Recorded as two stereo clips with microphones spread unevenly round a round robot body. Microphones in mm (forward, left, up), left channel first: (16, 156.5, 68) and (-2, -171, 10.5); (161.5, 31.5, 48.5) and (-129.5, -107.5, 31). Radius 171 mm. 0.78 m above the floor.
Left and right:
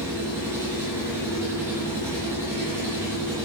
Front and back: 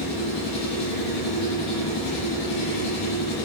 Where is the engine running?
10° right, 10 m.